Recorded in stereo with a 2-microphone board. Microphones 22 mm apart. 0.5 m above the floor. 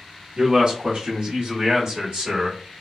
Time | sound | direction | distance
0.4 | a man speaking | 40° right (ahead or behind) | 0.9 m